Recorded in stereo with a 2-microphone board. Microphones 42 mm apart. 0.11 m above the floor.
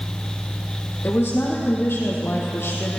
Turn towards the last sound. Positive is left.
turn(degrees=70)  # may be behind; listen again after turning